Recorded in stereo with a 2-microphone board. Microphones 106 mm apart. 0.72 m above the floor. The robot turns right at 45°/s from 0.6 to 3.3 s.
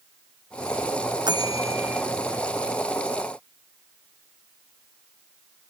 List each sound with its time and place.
1.3 s a bell: 45° right; by 2.0 s 10° right